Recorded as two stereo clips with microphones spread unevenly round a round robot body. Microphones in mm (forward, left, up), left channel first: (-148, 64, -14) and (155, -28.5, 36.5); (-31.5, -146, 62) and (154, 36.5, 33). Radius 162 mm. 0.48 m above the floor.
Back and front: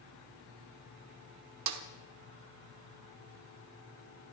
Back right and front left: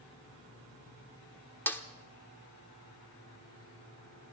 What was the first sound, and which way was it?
A snare drum, 50° right.